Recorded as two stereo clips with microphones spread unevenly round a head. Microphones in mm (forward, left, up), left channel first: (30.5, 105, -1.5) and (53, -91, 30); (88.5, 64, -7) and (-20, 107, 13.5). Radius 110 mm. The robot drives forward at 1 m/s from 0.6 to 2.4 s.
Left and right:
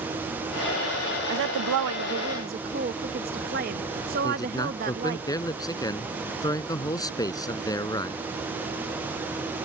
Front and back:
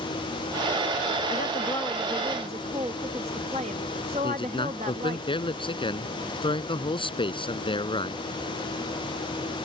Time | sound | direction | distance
1.3 | a woman speaking | 55° right | ?
4.2 | a man speaking | 25° left | ?